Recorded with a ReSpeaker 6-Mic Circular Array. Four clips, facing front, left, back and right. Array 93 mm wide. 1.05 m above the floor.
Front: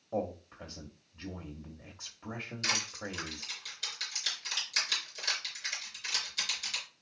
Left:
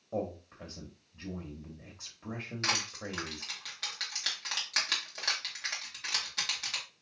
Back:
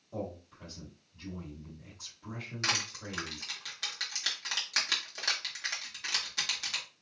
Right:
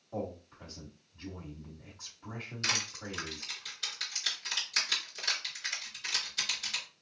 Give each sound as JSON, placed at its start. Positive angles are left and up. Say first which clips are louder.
{"t": 0.1, "sound": "a man speaking", "louder": "left 3 dB, front 5 dB", "azimuth_deg": 35, "distance_m": 1.1}
{"t": 2.6, "sound": "crushing", "louder": "left 2 dB, back 1 dB", "azimuth_deg": 135, "distance_m": 2.0}